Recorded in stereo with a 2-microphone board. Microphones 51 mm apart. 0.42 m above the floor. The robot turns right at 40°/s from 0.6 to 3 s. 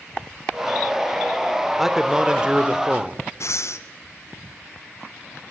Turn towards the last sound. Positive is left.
turn(degrees=65)  # may be behind; listen again after turning